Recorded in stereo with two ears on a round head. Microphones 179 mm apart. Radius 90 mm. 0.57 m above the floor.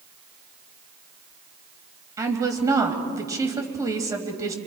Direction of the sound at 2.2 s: 15° right (ahead or behind).